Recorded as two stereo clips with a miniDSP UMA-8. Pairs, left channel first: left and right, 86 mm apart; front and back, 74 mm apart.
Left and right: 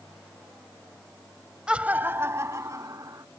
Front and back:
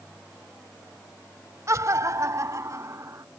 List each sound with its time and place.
1.7 s laughter: 165° right; by 3.2 s 135° right